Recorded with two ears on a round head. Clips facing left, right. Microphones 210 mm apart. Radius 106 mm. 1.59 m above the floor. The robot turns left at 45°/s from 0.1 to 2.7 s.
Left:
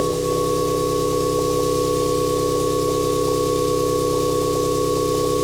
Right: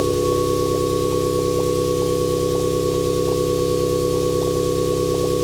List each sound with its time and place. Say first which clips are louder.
0.0 s an engine running: right 2 dB; 175° right, 1.5 m; by 5.5 s 70° left, 1.5 m